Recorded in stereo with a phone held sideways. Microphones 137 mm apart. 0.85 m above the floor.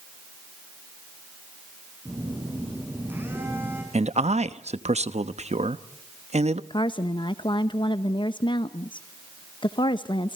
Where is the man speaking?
55° right (ahead or behind), 0.9 m.